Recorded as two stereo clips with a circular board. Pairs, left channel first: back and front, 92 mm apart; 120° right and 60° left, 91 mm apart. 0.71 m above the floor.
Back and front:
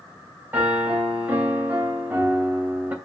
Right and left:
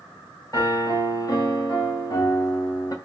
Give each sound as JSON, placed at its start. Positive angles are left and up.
{"t": 0.5, "sound": "a piano", "azimuth_deg": -70, "distance_m": 2.0}